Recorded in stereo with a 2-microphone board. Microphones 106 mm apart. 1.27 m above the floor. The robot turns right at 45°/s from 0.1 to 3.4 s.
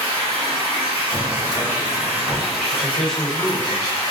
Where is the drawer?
65° right, 1.9 m; by 2.5 s straight ahead, 1.9 m.